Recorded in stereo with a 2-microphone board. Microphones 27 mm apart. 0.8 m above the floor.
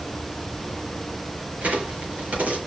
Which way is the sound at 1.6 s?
85° right.